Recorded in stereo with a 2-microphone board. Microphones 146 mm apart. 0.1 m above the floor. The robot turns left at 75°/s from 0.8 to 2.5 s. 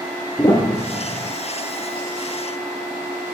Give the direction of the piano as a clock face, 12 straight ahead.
7 o'clock.